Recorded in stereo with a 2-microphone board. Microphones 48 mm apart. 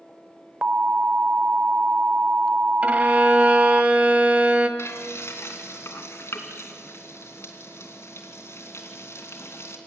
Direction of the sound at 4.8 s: 75° left (ahead or behind).